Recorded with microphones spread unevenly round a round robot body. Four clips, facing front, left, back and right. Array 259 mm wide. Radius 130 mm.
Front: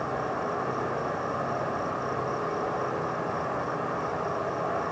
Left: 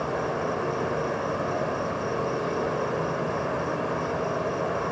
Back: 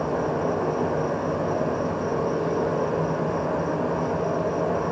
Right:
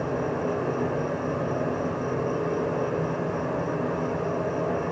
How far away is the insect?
About 1.9 m.